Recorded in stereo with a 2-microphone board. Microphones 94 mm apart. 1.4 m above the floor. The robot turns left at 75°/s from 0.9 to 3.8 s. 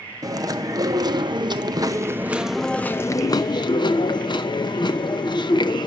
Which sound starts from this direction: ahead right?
Chewing, at 0.2 s.